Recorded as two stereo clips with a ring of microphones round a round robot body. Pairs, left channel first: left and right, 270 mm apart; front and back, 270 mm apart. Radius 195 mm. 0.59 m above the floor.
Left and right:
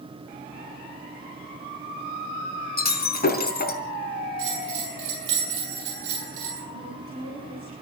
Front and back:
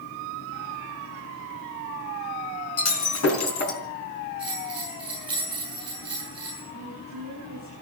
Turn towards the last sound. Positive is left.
turn(degrees=-50)